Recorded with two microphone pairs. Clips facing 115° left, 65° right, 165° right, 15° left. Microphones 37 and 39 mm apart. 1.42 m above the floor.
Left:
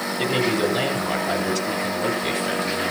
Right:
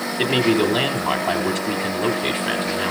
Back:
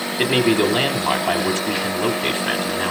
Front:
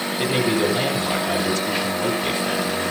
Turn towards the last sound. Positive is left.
turn(degrees=-115)